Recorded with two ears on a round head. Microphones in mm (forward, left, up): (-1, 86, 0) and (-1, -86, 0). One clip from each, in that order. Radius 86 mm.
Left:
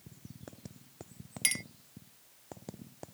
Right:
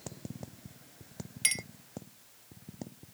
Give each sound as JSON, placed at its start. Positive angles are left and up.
{"t": 1.4, "sound": "a clink", "side_deg": 10}